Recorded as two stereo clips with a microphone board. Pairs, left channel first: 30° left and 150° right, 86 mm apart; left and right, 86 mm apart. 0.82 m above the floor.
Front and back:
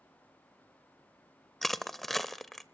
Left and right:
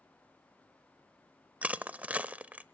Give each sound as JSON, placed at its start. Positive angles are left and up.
{"t": 1.6, "sound": "crushing", "azimuth_deg": -55, "distance_m": 0.6}